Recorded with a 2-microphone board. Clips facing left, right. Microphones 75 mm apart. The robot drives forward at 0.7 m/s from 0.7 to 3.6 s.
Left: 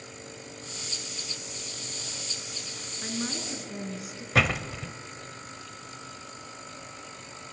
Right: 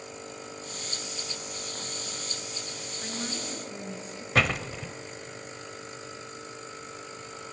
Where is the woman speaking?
10° left (ahead or behind), 3 m.